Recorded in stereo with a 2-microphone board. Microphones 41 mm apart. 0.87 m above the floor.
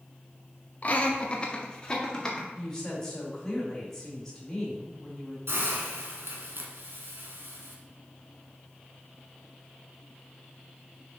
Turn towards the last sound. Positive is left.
turn(degrees=-70)  # may be behind; listen again after turning